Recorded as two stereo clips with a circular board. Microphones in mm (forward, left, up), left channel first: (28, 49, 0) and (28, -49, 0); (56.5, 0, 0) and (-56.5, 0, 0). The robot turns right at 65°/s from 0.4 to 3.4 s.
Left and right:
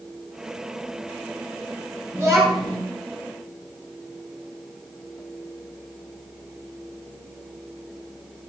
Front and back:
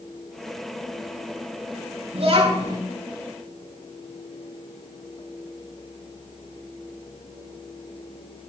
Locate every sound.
2.1 s a child speaking: 160° right, 5 m; by 2.8 s 120° right, 5 m